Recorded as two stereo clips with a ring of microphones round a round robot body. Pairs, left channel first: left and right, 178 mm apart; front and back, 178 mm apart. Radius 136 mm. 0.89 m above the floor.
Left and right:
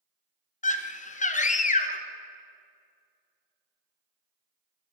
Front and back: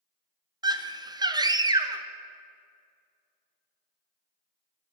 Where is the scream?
120° left, 0.7 m.